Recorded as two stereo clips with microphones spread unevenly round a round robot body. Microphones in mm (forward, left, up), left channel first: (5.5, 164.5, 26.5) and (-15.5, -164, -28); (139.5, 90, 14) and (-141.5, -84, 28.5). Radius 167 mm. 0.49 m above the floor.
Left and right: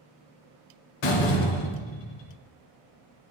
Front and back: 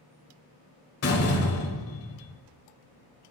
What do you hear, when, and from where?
1.0 s a door slam: 75° left, 1.4 m